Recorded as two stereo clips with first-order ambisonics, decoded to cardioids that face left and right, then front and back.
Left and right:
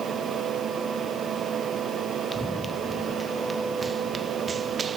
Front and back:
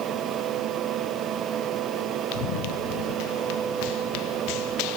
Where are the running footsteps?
5° left; by 5.0 s 20° right.